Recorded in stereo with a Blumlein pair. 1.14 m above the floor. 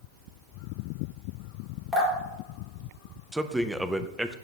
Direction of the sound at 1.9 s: 15° right.